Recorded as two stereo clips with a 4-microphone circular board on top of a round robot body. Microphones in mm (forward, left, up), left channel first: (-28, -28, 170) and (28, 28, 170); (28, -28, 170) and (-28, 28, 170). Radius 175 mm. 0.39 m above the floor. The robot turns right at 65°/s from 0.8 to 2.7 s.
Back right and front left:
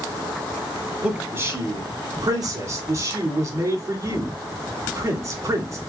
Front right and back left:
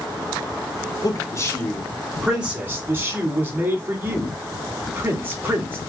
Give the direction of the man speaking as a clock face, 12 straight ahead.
1 o'clock.